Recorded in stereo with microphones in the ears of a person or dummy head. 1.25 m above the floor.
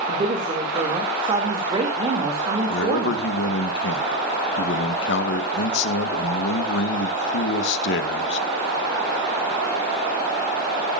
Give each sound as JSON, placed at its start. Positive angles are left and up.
{"t": 0.1, "sound": "a woman speaking", "side_deg": -25, "distance_m": 2.5}
{"t": 2.7, "sound": "a man speaking", "side_deg": 70, "distance_m": 1.3}